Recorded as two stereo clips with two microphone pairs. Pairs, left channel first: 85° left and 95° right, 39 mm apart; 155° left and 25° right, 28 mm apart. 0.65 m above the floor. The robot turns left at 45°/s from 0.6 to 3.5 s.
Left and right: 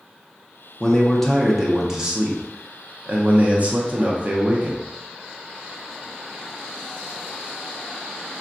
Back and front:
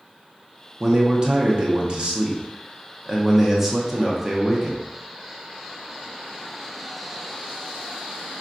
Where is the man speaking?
20° left, 0.6 m; by 4.8 s 100° right, 0.6 m.